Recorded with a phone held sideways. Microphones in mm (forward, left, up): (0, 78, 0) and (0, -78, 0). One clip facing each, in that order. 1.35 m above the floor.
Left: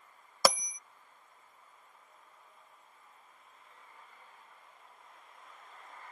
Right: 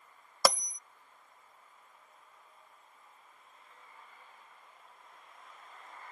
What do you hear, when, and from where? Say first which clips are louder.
0.5 s a bell: left 1 dB; 5° left (ahead or behind)